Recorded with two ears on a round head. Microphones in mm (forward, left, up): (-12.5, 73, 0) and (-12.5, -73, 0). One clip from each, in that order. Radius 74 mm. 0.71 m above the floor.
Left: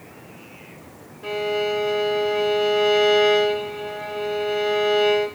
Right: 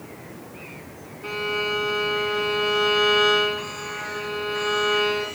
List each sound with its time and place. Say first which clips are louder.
1.2 s a violin: left 2 dB; 40° left (ahead or behind), 1.5 m